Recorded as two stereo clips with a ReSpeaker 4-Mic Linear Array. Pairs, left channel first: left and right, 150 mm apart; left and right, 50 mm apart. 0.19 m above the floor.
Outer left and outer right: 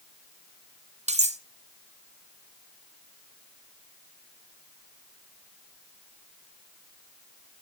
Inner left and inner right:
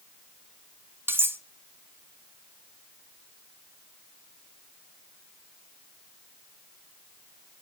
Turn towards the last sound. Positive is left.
turn(degrees=-50)  # may be behind; listen again after turning